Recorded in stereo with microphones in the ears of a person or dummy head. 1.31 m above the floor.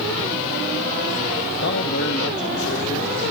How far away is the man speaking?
About 1.1 m.